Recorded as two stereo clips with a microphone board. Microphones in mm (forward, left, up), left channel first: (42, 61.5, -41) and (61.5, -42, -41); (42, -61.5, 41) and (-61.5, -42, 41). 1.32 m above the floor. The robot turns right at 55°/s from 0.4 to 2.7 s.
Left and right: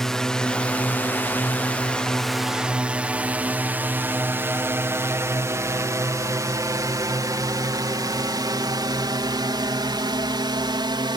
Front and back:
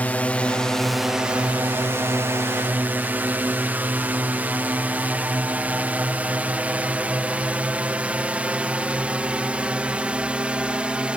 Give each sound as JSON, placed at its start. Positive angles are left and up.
{"t": 0.0, "sound": "a drone", "azimuth_deg": 25}